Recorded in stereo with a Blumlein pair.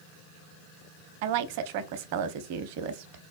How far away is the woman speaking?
About 0.6 m.